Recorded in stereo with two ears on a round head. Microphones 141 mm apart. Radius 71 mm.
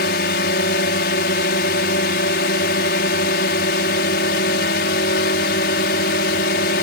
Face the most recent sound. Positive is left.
turn(degrees=75)  # may be behind; listen again after turning